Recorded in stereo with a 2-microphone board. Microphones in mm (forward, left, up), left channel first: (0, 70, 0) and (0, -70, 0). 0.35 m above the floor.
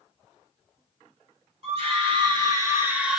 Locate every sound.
1.6 s a scream: 45° right (ahead or behind), 1.5 m; by 3.2 s 5° right (ahead or behind), 1.2 m